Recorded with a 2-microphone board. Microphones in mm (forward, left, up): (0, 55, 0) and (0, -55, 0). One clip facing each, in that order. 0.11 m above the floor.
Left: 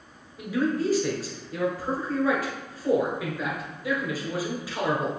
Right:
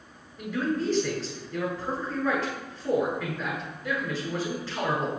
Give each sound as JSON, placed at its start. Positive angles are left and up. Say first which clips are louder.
{"t": 0.4, "sound": "a man speaking", "louder": "left 2 dB", "side_deg": 10, "distance_m": 1.4}